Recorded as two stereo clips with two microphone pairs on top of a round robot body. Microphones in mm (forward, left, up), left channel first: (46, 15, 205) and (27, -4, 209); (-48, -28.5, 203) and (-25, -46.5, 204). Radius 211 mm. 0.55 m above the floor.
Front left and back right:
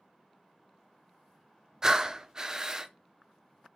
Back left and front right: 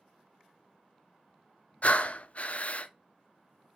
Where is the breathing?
155° left, 0.6 m.